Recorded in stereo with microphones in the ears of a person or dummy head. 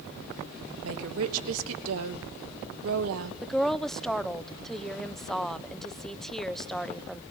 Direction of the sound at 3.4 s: 5° left (ahead or behind).